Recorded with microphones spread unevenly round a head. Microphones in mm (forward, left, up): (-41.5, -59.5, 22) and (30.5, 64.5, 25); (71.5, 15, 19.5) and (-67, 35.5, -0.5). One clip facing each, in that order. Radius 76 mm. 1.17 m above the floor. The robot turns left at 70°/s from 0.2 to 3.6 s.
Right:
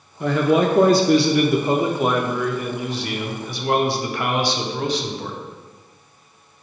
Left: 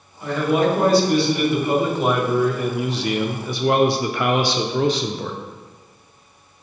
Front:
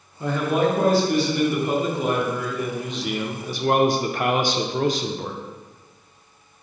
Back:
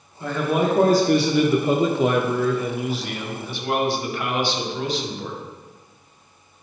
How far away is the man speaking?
About 0.5 m.